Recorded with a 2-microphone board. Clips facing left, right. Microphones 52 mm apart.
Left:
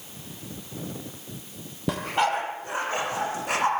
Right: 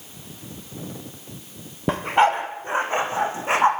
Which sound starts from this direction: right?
A dog barking, at 1.9 s.